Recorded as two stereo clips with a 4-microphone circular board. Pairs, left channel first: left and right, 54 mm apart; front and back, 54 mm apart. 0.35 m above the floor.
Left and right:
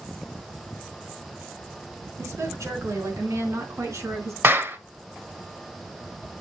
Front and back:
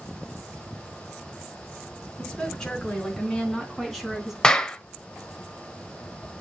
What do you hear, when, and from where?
2.2 s a woman speaking: 80° right, 3.5 m; by 4.3 s 95° right, 2.5 m
4.4 s a clap: 75° right, 0.9 m